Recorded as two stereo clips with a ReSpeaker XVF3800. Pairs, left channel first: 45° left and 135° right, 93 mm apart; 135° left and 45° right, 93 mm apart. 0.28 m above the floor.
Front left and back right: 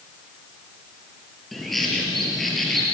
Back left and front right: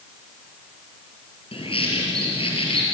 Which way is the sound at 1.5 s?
135° left.